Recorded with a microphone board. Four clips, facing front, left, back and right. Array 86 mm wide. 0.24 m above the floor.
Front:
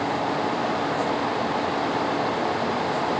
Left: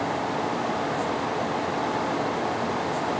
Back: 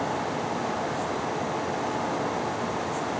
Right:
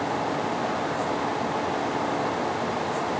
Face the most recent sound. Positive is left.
No sound to turn to.